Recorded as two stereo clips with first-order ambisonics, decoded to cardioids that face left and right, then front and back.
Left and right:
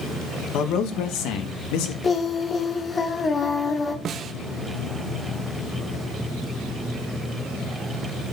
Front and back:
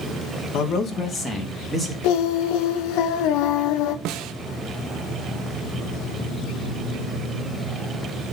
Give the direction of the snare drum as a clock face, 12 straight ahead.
5 o'clock.